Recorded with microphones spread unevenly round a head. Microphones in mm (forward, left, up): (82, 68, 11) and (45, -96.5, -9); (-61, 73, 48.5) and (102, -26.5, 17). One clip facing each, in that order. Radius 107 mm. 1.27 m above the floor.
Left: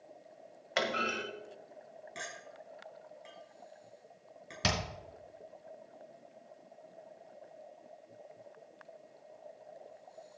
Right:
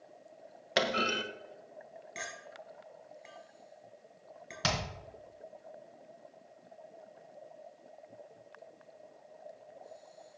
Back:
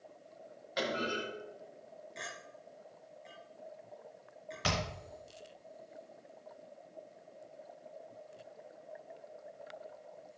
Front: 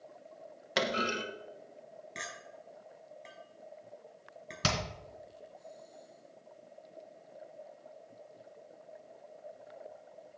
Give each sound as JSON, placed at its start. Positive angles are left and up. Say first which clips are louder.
{"t": 0.8, "sound": "a clunk", "louder": "right 3 dB, front 2 dB", "azimuth_deg": -55, "distance_m": 1.7}
{"t": 2.1, "sound": "a clink", "louder": "right 1 dB, front 1 dB", "azimuth_deg": -15, "distance_m": 5.5}
{"t": 4.6, "sound": "hammering", "louder": "even, front 1 dB", "azimuth_deg": 10, "distance_m": 3.5}